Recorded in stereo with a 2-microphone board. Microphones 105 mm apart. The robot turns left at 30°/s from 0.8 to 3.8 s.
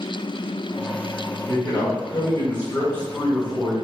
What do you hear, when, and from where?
1.5 s a man speaking: 85° left, 1.8 m; by 3.7 s 15° left, 1.8 m